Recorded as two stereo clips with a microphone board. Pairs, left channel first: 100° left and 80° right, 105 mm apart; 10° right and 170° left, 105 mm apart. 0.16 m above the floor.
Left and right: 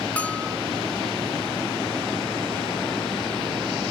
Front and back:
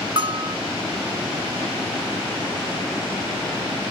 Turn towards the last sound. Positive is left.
turn(degrees=175)